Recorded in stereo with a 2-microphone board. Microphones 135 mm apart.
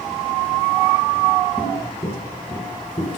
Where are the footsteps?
30° left (ahead or behind), 1.6 m; by 3.2 s 55° left (ahead or behind), 2.5 m.